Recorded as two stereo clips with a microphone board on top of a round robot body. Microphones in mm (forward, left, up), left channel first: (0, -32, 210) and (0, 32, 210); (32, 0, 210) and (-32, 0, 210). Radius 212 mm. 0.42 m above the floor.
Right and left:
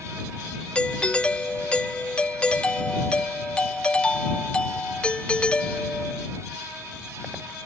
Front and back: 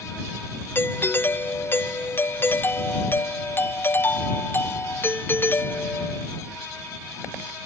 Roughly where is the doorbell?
Ahead right.